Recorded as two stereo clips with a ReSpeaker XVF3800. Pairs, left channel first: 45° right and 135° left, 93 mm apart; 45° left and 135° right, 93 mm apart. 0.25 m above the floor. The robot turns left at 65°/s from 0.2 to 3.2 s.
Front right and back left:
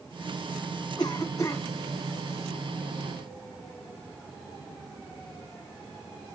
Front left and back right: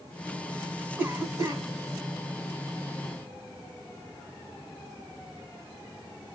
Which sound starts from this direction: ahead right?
A cough, at 1.0 s.